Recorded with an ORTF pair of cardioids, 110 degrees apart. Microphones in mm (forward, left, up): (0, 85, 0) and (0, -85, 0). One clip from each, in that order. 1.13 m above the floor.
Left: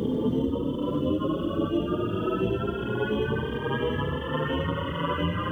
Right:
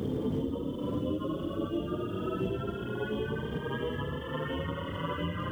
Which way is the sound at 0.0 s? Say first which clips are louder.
Left 6 dB; 40° left.